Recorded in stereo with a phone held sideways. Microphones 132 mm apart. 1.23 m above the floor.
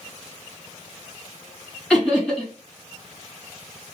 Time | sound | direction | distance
1.9 | laughter | 5° left (ahead or behind) | 2.5 m